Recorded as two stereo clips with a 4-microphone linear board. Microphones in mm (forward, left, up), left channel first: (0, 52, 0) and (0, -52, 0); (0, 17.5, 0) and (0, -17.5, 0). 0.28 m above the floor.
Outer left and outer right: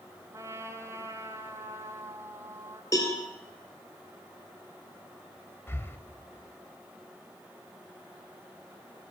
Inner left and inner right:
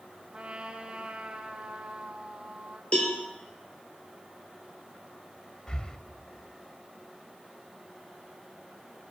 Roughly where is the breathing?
Left.